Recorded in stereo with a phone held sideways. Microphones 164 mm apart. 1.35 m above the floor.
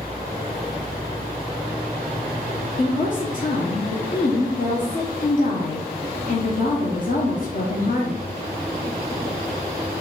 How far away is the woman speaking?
About 0.9 m.